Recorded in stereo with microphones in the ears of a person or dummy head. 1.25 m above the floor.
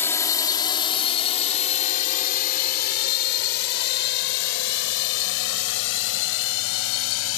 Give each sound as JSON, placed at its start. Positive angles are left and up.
{"t": 0.0, "sound": "a drone", "side_deg": 10}